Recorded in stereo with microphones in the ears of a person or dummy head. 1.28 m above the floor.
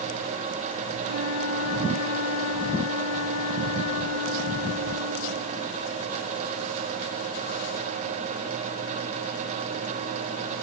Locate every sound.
1.0 s a flute: 75° left (ahead or behind), 3 m